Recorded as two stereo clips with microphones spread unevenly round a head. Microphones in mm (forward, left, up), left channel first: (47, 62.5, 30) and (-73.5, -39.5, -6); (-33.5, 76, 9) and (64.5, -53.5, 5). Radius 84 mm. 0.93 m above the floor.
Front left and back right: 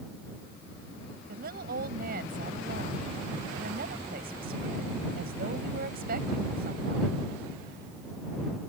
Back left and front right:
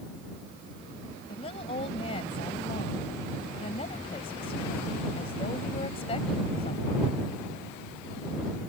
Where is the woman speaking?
175° right.